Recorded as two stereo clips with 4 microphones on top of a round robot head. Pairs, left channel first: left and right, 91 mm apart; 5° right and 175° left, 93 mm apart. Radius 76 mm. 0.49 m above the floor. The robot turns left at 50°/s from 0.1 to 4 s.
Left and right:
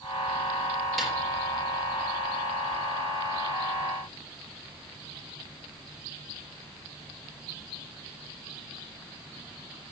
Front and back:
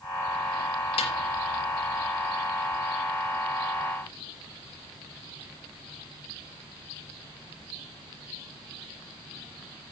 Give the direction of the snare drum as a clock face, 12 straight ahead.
12 o'clock.